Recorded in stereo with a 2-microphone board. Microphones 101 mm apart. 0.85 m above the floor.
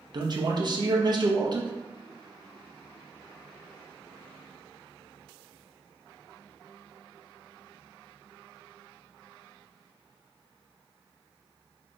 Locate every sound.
0.1 s a man speaking: 45° right (ahead or behind), 0.7 m